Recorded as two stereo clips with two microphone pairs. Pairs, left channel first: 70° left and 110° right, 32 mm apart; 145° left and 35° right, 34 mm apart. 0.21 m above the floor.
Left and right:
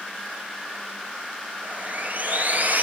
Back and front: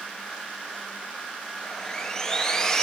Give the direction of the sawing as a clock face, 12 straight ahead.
5 o'clock.